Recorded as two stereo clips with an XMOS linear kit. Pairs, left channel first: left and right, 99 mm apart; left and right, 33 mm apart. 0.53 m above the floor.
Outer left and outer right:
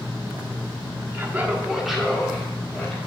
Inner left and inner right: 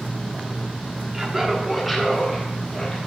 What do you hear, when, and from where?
1.1 s laughter: 25° right (ahead or behind), 1.0 m; by 3.0 s 15° left (ahead or behind), 2 m